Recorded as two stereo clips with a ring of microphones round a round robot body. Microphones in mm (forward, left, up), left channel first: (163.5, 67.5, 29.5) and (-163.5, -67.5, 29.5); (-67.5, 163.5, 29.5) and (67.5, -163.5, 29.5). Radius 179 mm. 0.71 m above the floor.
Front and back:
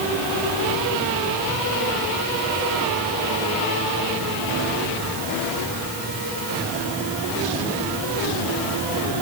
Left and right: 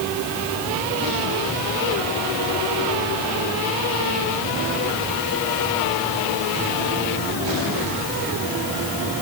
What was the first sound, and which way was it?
Only background noise.